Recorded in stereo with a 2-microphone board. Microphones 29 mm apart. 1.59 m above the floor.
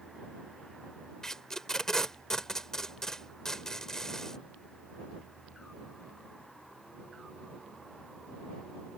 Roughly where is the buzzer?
I don't hear a buzzer.